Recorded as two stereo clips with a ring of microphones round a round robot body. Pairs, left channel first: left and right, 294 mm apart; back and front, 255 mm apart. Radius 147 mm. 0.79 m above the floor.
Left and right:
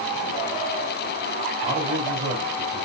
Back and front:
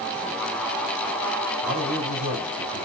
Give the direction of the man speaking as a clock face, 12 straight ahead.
1 o'clock.